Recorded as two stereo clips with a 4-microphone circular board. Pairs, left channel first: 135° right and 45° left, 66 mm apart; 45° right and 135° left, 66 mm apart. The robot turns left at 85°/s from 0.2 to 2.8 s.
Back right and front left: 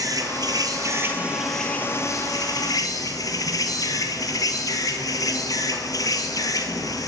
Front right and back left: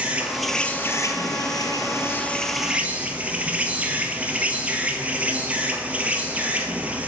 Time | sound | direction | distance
0.0 | an insect | 65° left | 1.2 m